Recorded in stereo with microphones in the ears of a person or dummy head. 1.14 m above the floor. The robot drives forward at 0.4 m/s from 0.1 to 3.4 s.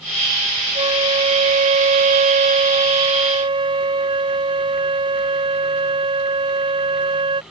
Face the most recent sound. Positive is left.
turn(degrees=-20)  # may be behind; listen again after turning